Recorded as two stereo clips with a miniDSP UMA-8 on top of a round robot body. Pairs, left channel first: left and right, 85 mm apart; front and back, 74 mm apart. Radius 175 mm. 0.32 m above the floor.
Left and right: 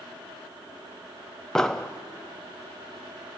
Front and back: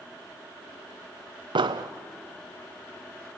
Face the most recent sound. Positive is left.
turn(degrees=170)